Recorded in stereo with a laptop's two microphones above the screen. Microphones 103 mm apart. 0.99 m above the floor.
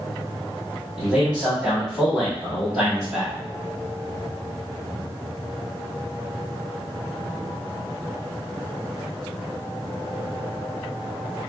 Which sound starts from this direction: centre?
A man speaking, at 1.0 s.